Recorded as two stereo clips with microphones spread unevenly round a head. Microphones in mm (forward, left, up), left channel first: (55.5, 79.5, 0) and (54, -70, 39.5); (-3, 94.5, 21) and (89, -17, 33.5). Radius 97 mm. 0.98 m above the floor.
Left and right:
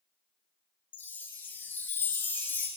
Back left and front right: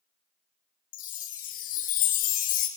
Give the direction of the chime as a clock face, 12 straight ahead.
6 o'clock.